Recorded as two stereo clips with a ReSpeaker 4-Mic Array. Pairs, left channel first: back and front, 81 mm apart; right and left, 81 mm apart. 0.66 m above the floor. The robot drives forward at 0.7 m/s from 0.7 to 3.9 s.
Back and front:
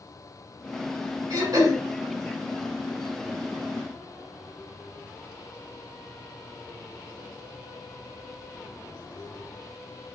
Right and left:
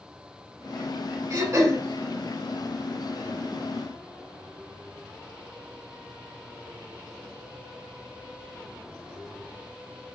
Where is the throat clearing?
45° left, 4 m.